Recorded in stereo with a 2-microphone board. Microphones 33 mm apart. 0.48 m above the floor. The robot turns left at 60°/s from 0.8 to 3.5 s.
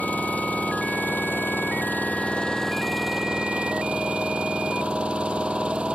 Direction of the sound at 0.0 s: 125° left.